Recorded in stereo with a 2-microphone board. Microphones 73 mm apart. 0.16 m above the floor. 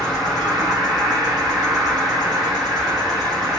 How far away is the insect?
About 2 m.